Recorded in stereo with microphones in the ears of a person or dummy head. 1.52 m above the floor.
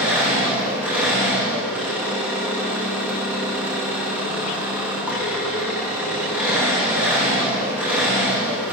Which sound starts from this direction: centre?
An engine running, at 0.0 s.